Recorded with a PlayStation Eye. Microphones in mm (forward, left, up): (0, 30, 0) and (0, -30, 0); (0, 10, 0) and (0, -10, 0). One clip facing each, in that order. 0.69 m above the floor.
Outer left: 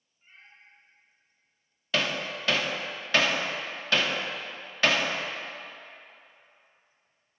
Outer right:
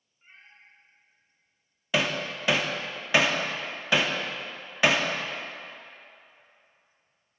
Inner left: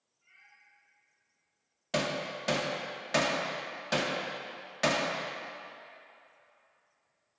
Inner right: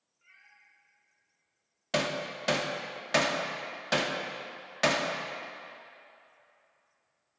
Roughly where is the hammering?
Centre.